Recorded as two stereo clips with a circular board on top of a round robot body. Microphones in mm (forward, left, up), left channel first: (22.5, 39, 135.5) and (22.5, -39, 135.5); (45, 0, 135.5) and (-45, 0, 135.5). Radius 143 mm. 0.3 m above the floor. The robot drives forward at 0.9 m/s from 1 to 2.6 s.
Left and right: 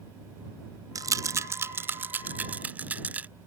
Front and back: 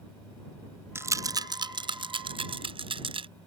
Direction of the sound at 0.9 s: 120° right.